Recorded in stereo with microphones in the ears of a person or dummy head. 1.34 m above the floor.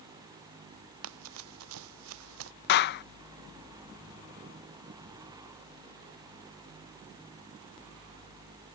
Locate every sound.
1.0 s running footsteps: 75° right (ahead or behind); by 2.5 s 80° right
2.7 s a clap: 55° left (ahead or behind)